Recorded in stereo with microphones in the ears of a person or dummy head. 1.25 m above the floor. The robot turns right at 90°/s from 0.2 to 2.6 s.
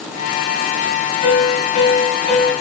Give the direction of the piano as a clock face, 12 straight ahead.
10 o'clock.